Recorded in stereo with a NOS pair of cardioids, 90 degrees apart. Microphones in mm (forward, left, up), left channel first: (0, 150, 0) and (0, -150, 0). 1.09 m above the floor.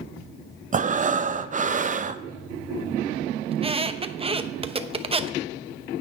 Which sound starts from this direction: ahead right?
Breathing, at 0.7 s.